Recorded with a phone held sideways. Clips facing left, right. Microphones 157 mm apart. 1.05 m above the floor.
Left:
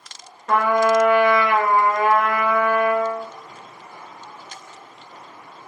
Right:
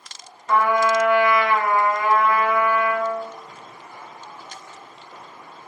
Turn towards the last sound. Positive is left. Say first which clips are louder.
# left 2 dB
turn(degrees=60)  # may be behind; listen again after turning